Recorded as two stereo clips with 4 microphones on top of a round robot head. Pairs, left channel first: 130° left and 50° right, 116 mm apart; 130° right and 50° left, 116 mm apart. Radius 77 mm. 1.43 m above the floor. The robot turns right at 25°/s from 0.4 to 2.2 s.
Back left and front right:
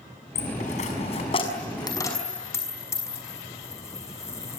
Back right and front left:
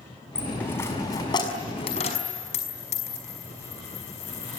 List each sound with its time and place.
0.3 s a dropped coin: 150° left, 5.5 m; by 4.6 s 165° right, 5.5 m